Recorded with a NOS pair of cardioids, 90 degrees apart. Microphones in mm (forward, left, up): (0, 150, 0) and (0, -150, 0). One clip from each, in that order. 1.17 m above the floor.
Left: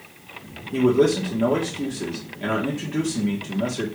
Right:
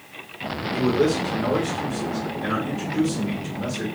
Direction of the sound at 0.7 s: 65° left.